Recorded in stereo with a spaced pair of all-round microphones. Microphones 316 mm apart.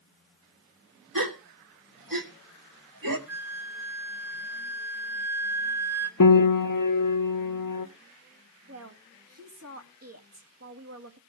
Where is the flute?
50° right (ahead or behind), 1.0 m.